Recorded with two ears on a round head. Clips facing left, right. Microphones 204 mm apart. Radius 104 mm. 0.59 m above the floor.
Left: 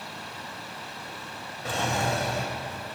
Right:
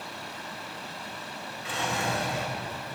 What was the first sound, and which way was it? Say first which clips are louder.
A drawer: left 3 dB; 35° left (ahead or behind).